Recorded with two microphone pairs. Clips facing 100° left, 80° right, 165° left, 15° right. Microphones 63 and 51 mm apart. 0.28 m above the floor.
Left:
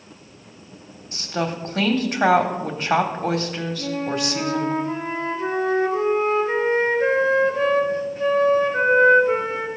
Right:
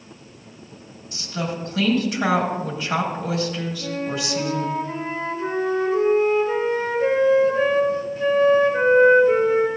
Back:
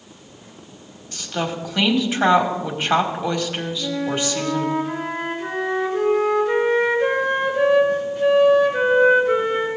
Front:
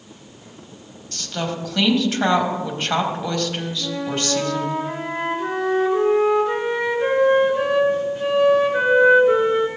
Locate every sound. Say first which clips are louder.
1.1 s a woman speaking: left 3 dB, back 1 dB; 95° left, 1.3 m
3.8 s a flute: left 4 dB, back 3 dB; 55° left, 3 m